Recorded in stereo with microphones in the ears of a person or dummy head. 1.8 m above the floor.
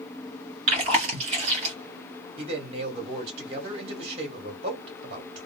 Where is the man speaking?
35° right (ahead or behind), 1.2 m.